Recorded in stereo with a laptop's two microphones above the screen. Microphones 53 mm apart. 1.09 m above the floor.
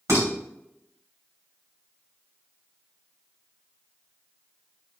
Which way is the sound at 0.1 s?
85° right.